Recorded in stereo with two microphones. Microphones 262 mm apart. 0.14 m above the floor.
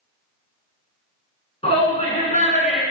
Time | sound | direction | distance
1.6 | a shout | 25° left (ahead or behind) | 1.4 m